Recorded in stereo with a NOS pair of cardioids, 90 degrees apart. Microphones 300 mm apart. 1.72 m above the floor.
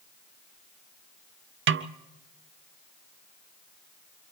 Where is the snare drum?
45° right, 0.7 m.